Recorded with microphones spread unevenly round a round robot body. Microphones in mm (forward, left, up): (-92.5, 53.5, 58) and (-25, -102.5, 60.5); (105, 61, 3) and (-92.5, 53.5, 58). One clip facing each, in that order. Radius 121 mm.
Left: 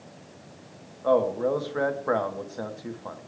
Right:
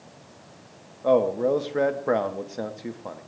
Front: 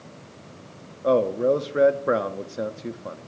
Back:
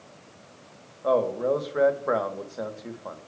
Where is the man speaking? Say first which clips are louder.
Right 2 dB, front 4 dB; straight ahead, 0.9 m.